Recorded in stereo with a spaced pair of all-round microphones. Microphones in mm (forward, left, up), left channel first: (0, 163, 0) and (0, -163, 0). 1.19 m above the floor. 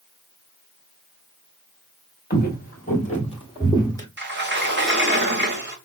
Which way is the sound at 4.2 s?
35° right (ahead or behind).